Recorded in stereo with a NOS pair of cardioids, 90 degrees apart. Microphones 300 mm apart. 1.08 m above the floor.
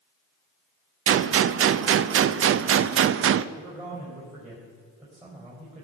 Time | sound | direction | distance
1.1 | a gunshot | 45° right | 0.5 m
3.5 | a man speaking | 15° right | 4.5 m